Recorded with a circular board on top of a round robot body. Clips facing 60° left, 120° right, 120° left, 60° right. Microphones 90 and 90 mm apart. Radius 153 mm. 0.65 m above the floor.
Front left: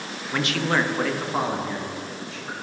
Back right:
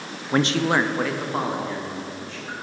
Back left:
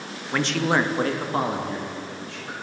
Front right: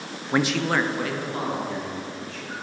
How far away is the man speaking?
About 0.7 m.